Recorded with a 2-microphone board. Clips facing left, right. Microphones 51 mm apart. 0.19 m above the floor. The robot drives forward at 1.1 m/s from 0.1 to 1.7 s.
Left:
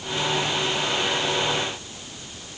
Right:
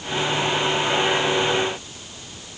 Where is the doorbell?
I don't hear a doorbell.